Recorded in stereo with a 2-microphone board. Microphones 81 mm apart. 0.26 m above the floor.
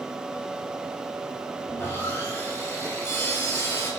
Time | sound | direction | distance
1.7 | sawing | 30° left (ahead or behind) | 3 m